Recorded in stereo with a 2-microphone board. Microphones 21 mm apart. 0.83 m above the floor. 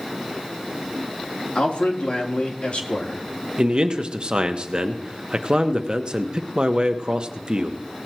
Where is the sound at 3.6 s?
45° right (ahead or behind), 1.0 m.